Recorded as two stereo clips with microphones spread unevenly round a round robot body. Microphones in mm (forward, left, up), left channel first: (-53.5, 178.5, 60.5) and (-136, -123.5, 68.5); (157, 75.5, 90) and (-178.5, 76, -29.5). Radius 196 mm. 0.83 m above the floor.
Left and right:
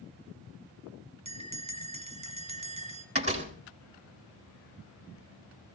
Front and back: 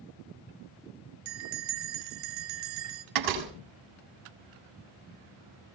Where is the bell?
175° right, 1.8 m.